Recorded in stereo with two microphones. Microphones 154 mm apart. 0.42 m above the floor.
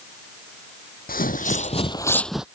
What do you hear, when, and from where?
1.1 s footsteps: 65° left (ahead or behind); by 2.5 s 5° right (ahead or behind)